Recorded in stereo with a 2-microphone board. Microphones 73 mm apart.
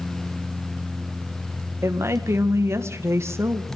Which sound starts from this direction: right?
A woman speaking, at 1.8 s.